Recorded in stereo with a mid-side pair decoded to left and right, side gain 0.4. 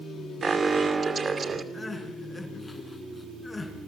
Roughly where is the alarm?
Ahead right.